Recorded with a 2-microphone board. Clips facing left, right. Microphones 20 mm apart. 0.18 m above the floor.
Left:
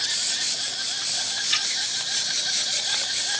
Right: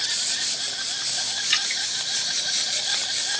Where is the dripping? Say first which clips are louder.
Right 1 dB; 30° right (ahead or behind), 2.5 m.